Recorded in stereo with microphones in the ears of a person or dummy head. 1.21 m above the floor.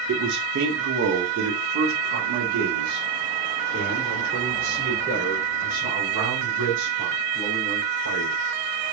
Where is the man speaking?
80° right, 1.1 m; by 8.3 s 40° right (ahead or behind), 6.5 m.